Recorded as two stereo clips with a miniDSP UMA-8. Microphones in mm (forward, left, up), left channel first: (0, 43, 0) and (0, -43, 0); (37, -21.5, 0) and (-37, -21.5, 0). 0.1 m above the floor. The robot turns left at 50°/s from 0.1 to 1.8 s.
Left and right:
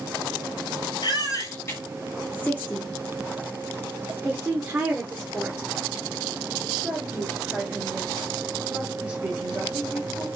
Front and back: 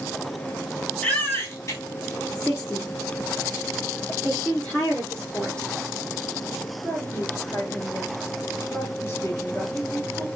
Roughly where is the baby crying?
Ahead left.